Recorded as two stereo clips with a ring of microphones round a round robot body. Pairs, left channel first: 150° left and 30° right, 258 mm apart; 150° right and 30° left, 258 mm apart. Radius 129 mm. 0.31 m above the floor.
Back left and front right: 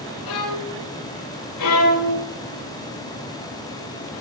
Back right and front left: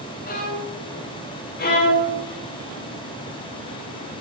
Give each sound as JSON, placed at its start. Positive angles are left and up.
{"t": 0.2, "sound": "a violin", "azimuth_deg": 155, "distance_m": 7.0}
{"t": 1.6, "sound": "a violin", "azimuth_deg": 155, "distance_m": 6.0}